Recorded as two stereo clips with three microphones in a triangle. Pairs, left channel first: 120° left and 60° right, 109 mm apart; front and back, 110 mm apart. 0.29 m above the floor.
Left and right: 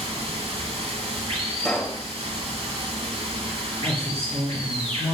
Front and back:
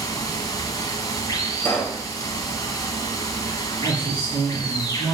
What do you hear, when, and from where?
0.0 s running water: 50° right, 1.2 m
1.6 s a pop: 40° left, 1.5 m
3.8 s a woman speaking: 50° right, 3.5 m